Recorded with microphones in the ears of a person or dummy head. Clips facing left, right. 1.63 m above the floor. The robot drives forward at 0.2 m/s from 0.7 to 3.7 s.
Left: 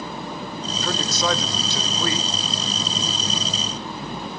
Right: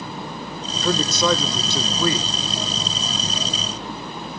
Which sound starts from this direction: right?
A man speaking, at 0.8 s.